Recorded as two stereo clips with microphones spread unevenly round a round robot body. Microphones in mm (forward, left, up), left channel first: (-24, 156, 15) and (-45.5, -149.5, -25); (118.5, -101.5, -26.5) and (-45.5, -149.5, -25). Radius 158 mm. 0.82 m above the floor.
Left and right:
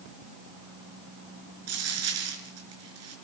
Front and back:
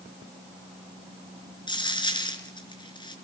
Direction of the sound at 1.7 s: 45° right.